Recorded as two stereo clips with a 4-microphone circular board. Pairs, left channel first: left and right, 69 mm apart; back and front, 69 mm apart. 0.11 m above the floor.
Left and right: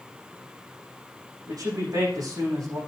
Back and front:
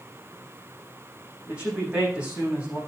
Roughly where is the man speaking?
Right.